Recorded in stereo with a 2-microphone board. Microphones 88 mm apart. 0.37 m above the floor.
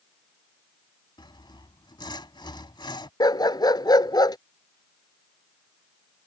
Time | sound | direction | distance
1.2 | sawing | 65° left (ahead or behind) | ?
3.2 | a dog barking | 55° left (ahead or behind) | ?